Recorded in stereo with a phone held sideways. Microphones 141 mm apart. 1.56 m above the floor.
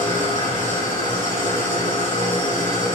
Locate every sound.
0.0 s an engine running: 65° left (ahead or behind), 4 m